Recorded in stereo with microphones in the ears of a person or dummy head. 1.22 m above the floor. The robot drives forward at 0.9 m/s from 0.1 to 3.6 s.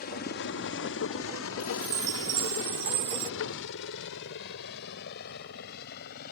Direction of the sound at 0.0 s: 45° left (ahead or behind).